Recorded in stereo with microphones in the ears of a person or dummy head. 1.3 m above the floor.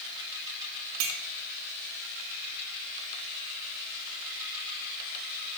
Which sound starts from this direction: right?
A clink, at 1.0 s.